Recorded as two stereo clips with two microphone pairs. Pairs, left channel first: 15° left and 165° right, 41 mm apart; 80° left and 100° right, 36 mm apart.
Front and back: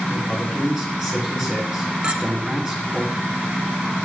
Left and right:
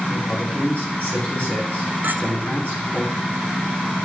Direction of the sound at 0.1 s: 115° left.